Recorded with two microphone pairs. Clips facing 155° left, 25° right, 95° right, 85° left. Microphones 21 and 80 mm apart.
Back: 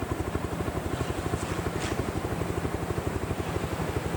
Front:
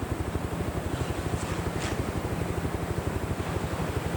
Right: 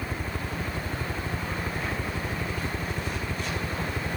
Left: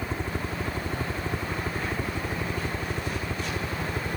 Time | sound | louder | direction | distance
0.0 | a helicopter | back 1 dB, left 2 dB | 145° left | ?